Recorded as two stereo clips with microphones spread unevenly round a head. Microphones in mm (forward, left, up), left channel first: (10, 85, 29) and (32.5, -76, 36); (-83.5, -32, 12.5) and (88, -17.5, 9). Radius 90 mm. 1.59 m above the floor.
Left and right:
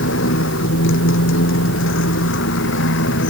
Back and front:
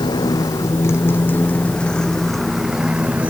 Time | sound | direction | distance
0.0 | a motorcycle | 115° left | ?